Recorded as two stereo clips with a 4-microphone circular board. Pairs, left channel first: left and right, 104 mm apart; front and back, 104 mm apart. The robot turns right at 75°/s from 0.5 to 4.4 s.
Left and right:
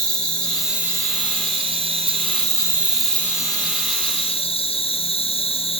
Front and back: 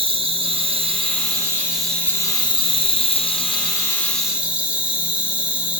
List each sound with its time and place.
0.0 s an insect: 170° left, 2 m; by 5.8 s 100° left, 2 m